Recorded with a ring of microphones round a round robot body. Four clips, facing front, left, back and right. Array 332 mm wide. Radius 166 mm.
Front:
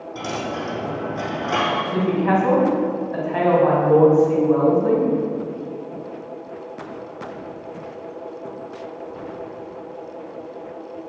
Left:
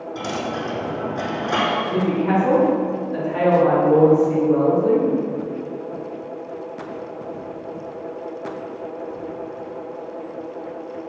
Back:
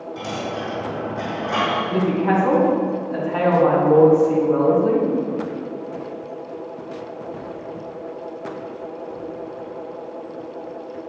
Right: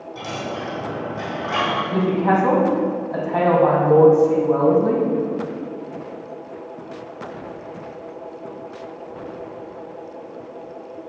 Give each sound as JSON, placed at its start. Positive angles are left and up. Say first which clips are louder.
{"t": 0.1, "sound": "a dropped coin", "louder": "left 2 dB, front 1 dB", "azimuth_deg": 30, "distance_m": 3.5}
{"t": 1.9, "sound": "a woman speaking", "louder": "right 3 dB, even", "azimuth_deg": -75, "distance_m": 3.0}